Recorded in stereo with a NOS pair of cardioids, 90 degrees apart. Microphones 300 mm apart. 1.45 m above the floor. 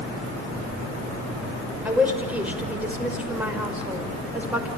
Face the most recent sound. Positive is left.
turn(degrees=-5)